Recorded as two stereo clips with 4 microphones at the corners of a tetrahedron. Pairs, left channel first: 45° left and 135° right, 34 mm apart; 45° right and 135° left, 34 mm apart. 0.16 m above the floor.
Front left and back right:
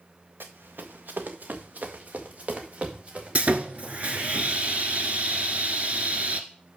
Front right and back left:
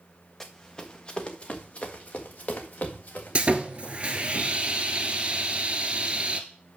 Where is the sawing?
175° right, 1.2 m.